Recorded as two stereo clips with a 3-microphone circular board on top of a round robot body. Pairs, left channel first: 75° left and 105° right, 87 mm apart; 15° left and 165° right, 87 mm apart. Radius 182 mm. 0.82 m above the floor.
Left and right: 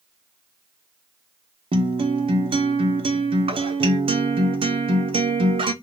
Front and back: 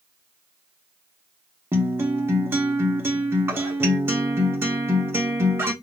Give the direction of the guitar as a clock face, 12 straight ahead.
3 o'clock.